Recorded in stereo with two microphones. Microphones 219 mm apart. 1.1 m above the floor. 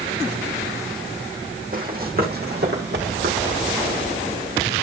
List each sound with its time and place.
1.7 s running footsteps: 40° right (ahead or behind), 3 m; by 3.6 s 55° right (ahead or behind), 3.5 m